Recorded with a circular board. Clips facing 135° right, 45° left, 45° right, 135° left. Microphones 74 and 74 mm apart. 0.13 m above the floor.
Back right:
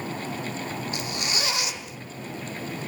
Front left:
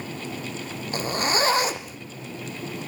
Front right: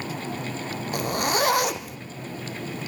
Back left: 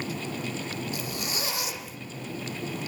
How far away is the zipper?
About 1.9 m.